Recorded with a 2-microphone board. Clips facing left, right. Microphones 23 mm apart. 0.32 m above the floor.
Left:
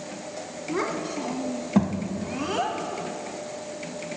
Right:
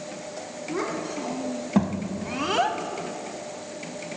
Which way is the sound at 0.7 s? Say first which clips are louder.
Left 1 dB; 15° left (ahead or behind).